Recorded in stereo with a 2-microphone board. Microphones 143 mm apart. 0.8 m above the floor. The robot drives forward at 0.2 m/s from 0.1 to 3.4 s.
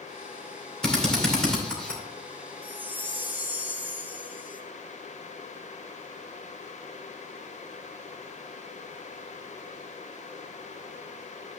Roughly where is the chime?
Centre.